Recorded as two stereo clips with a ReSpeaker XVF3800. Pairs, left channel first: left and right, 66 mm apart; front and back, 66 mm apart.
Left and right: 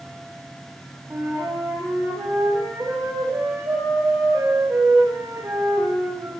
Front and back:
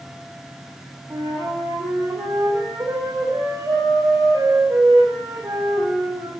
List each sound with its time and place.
1.1 s a flute: 145° right, 9.5 m